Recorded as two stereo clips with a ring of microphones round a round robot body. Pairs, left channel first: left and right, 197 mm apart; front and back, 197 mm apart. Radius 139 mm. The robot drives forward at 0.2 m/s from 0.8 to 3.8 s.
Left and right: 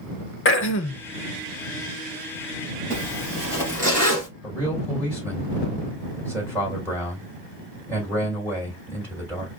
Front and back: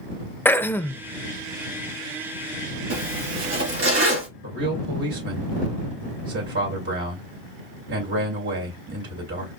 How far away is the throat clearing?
About 0.6 m.